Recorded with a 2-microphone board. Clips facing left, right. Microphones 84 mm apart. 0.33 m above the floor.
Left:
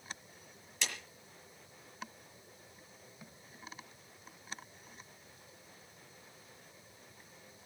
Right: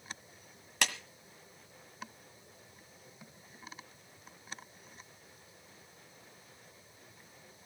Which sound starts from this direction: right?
A clap, at 0.8 s.